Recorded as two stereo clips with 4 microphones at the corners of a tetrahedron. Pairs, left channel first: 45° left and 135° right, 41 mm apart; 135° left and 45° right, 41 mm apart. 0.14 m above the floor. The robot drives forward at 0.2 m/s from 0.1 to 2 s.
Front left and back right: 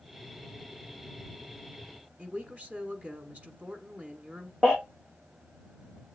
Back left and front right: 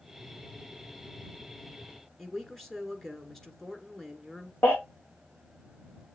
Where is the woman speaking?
145° right, 1.3 m.